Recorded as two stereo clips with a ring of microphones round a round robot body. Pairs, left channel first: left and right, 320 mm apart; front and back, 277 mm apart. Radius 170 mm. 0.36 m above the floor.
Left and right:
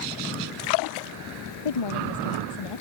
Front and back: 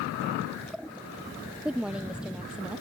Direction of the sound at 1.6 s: 95° left.